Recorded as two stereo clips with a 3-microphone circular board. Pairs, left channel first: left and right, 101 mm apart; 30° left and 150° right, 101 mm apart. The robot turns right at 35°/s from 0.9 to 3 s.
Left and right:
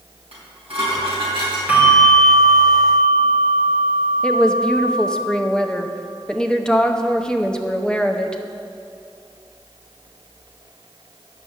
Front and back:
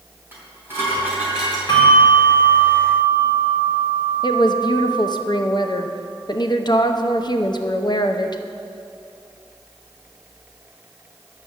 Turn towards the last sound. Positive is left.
turn(degrees=10)